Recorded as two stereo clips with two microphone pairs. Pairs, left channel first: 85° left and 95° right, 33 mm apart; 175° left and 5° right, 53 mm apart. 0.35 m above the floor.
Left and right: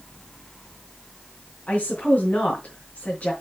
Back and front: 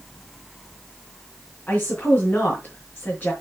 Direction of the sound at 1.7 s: 125° left.